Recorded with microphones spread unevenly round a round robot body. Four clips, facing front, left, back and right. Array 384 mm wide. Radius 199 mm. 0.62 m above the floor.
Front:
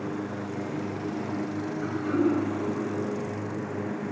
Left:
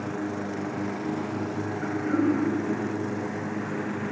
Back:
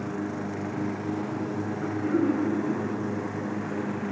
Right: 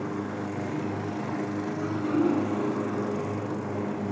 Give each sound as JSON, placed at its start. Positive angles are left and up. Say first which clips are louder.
{"t": 1.8, "sound": "throat clearing", "louder": "left 1 dB, even", "azimuth_deg": -140, "distance_m": 2.0}